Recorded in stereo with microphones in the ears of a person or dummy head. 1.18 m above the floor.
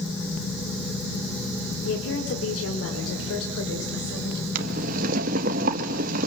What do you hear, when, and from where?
1.9 s a woman speaking: 85° left, 3.5 m; by 4.5 s 75° left (ahead or behind), 5.5 m
4.5 s boiling: 55° right (ahead or behind), 1.7 m